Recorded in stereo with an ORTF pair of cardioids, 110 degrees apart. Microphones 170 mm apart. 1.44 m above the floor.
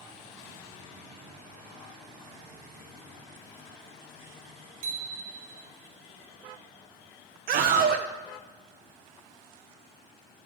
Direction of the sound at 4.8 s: 60° right.